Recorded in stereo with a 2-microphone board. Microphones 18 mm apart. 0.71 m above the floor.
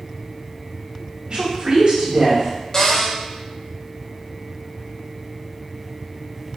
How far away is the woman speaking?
About 1.9 m.